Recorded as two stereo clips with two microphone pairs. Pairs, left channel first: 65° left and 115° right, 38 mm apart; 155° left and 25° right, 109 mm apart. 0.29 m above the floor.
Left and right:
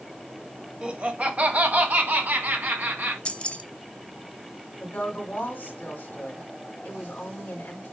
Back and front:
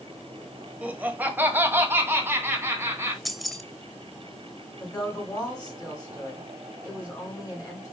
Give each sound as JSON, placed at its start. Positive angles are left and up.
{"t": 0.8, "sound": "laughter", "azimuth_deg": -90, "distance_m": 1.2}
{"t": 3.2, "sound": "keys jangling", "azimuth_deg": 65, "distance_m": 0.6}
{"t": 4.8, "sound": "a woman speaking", "azimuth_deg": 110, "distance_m": 1.9}